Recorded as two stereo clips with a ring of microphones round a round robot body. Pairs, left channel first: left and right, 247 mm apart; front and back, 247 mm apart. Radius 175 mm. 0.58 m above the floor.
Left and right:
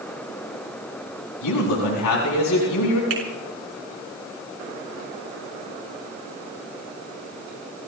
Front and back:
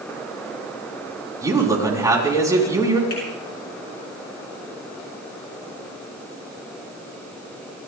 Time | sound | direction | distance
1.4 | a man speaking | 105° left | 5.5 m
3.1 | a finger snap | 65° right | 5.5 m